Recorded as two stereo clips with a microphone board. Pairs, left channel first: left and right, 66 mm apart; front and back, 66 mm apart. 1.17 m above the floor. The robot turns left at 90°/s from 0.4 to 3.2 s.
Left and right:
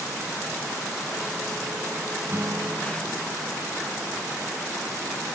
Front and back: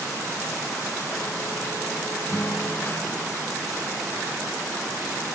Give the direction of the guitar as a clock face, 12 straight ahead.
1 o'clock.